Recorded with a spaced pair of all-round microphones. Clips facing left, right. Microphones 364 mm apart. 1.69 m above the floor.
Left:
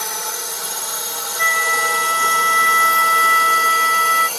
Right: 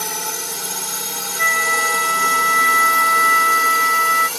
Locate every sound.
0.0 s a drone: 45° right (ahead or behind); by 4.4 s 30° right (ahead or behind)
1.4 s a flute: 50° left (ahead or behind)